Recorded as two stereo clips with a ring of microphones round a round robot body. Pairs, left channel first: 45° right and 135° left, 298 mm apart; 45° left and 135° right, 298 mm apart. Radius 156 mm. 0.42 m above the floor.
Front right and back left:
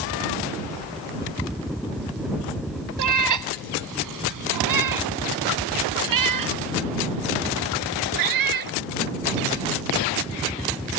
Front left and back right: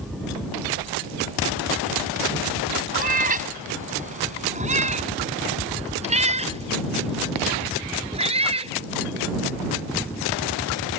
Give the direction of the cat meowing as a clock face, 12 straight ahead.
7 o'clock.